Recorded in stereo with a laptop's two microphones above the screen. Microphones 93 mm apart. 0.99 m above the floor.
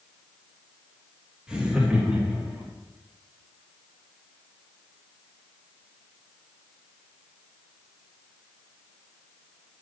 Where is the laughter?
10° right (ahead or behind), 1.4 m; by 2.7 s 15° right (ahead or behind), 2.5 m.